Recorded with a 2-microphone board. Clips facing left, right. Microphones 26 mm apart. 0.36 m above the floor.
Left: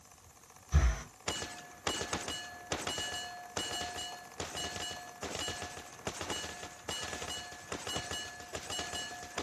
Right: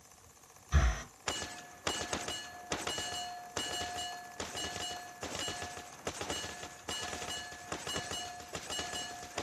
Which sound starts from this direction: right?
Breathing, at 0.7 s.